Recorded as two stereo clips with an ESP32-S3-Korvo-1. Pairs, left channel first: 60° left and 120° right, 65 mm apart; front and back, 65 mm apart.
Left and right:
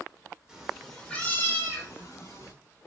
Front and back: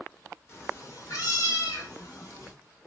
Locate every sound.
0.5 s a cat meowing: 45° right, 1.2 m; by 2.5 s 30° left, 2.5 m